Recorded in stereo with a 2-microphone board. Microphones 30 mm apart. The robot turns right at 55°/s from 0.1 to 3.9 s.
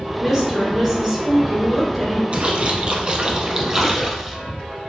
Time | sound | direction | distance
0.2 | a woman speaking | 20° right (ahead or behind) | 1.1 m
2.3 | a splash | 95° right | 0.7 m